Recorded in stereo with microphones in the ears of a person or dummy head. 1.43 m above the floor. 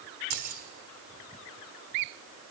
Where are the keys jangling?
50° right (ahead or behind), 3 m.